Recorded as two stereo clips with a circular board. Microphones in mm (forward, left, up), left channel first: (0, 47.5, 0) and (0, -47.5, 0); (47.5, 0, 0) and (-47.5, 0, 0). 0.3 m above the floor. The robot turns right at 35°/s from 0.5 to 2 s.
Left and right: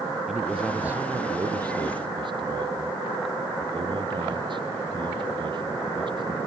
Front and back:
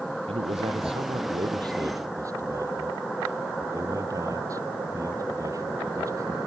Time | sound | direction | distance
0.3 | a man speaking | 175° right | ?